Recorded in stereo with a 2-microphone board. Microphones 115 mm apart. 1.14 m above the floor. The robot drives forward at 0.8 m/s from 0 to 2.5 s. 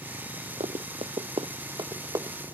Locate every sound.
0.6 s running footsteps: 60° right (ahead or behind); by 2.4 s 25° right (ahead or behind)